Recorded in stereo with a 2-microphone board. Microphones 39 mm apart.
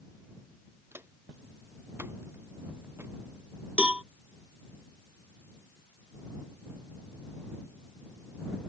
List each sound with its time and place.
0.9 s footsteps: 80° right; by 3.1 s 85° right
3.8 s a cowbell: 30° right (ahead or behind)